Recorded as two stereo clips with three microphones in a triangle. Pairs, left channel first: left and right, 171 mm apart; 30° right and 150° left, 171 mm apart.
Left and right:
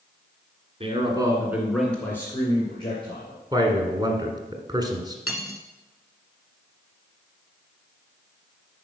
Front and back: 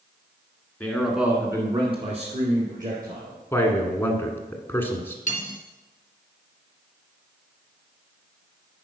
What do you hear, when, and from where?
0.8 s a man speaking: 105° right, 1.8 m; by 3.4 s 140° left, 3 m
3.5 s a man speaking: 85° right, 1.4 m
5.3 s cutlery clinking: 15° right, 1.2 m